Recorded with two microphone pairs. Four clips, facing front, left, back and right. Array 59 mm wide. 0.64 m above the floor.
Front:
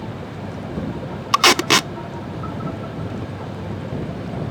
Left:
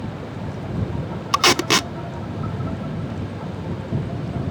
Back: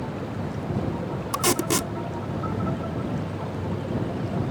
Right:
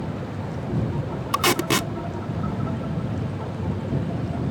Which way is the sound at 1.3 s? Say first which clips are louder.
Left 4 dB, front 9 dB; 20° left.